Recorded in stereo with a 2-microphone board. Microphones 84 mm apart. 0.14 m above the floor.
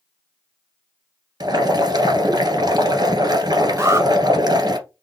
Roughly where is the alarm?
Right.